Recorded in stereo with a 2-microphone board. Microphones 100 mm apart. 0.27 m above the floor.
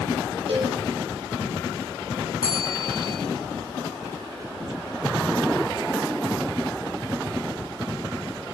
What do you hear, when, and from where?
0.5 s a cowbell: 55° right (ahead or behind), 8 m
2.4 s a bell: 70° right (ahead or behind), 9.5 m